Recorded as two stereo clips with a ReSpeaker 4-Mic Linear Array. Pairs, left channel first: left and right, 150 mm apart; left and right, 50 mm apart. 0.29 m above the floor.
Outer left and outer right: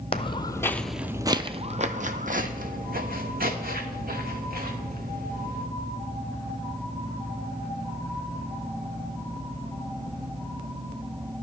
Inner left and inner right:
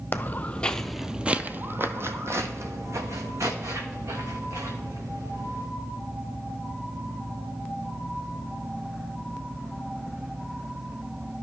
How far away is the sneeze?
No sneeze in this recording.